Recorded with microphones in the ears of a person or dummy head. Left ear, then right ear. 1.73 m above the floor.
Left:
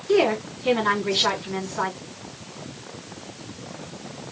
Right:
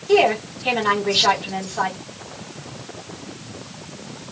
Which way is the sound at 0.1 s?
10° right (ahead or behind).